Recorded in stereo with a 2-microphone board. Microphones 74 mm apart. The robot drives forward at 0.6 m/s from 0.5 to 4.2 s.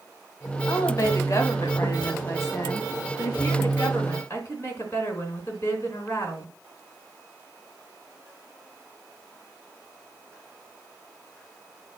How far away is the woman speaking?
About 2 m.